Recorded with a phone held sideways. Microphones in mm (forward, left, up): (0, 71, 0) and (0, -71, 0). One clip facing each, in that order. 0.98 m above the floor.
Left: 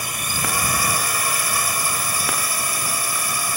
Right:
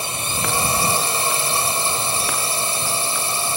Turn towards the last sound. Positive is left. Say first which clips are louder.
# right 2 dB
turn(degrees=-25)  # may be behind; listen again after turning